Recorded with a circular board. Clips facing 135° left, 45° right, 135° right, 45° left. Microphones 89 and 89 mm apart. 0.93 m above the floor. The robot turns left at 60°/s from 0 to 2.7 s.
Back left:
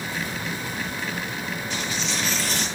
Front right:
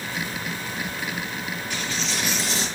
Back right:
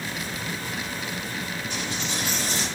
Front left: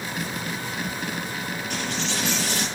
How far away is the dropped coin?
About 8.5 m.